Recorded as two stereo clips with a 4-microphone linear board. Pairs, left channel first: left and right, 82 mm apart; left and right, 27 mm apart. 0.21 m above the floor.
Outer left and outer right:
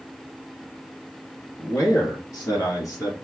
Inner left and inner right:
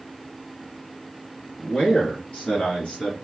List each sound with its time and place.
1.6 s a man speaking: 40° left (ahead or behind), 1.7 m